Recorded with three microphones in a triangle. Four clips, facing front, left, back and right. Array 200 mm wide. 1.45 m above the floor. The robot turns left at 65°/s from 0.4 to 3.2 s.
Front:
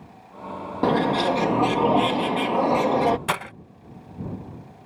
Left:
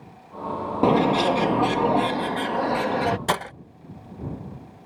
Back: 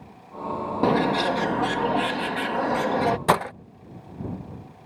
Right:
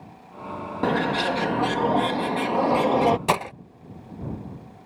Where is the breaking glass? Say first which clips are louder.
Right 2 dB, back 6 dB; 170° right.